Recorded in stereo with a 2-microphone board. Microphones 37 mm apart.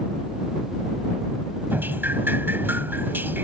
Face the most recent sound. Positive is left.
turn(degrees=-65)  # may be behind; listen again after turning